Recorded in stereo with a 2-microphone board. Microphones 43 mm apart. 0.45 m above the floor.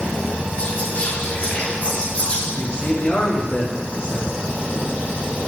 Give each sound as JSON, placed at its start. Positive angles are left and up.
{"t": 0.6, "sound": "whispering", "side_deg": 35, "distance_m": 0.9}
{"t": 2.5, "sound": "a man speaking", "side_deg": 25, "distance_m": 1.6}